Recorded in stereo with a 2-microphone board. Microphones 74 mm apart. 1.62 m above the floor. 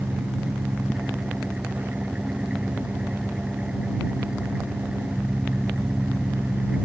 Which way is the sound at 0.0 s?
15° right (ahead or behind).